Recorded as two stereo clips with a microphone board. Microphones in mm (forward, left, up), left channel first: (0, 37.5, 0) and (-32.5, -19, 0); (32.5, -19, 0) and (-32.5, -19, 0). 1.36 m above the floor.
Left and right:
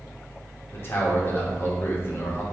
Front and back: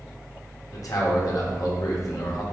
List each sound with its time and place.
0.7 s a man speaking: 10° left, 1.1 m